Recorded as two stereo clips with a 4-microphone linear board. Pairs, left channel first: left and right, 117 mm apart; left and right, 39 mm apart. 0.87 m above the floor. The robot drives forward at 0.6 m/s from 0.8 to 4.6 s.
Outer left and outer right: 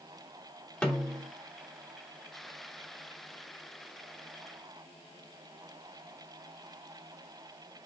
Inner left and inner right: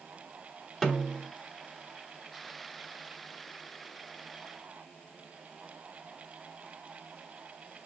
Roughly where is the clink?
No clink in this recording.